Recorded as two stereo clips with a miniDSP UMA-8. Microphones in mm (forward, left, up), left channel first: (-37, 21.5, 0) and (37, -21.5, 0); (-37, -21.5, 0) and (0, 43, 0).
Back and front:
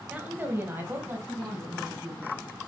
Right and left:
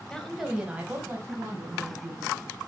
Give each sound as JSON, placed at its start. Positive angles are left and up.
{"t": 0.1, "sound": "a woman speaking", "azimuth_deg": -60, "distance_m": 1.3}